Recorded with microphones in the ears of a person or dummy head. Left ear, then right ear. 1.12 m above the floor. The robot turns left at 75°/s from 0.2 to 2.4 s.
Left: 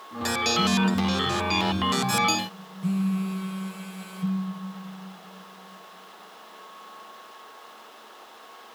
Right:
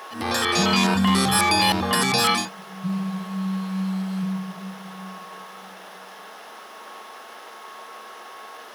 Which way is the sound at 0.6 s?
80° right.